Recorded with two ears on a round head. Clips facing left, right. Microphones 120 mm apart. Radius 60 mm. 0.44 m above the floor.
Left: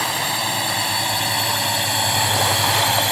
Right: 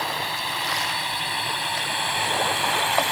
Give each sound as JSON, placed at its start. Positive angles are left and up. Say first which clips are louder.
{"t": 0.0, "sound": "a drone", "louder": "left 4 dB", "side_deg": 55}